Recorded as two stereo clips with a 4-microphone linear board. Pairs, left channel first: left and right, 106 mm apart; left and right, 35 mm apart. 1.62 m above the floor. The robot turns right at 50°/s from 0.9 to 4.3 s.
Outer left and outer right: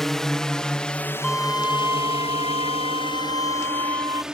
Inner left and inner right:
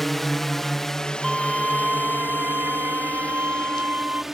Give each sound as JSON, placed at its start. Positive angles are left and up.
{"t": 0.0, "sound": "a drone", "side_deg": 5}
{"t": 1.2, "sound": "a violin", "azimuth_deg": 175}